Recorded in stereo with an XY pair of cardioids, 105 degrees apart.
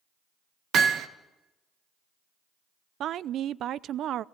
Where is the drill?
I don't hear a drill.